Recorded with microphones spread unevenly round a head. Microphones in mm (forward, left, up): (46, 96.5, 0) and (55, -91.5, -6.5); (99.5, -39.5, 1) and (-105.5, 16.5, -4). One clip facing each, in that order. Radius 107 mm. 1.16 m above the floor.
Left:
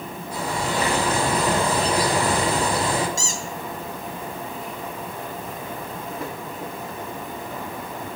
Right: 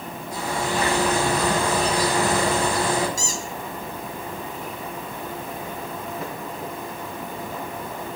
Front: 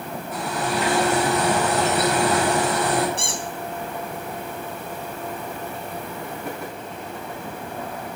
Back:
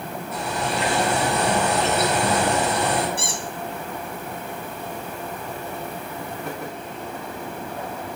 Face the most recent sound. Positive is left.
turn(degrees=75)